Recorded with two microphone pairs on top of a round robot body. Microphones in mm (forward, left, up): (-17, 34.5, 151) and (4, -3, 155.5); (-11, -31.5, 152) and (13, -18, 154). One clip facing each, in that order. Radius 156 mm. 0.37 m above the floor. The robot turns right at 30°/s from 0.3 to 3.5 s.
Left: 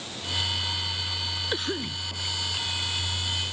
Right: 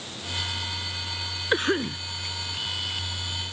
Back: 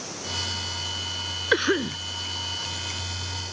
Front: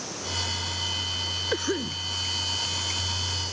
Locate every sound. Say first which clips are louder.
1.5 s a cough: right 9 dB, back 10 dB; 115° right; by 2.0 s 100° right